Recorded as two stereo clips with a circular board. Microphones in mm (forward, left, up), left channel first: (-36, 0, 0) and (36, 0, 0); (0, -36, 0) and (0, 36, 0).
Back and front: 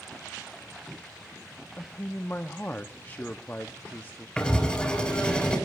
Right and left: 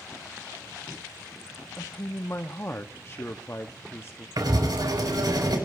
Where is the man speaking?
130° right, 0.6 m.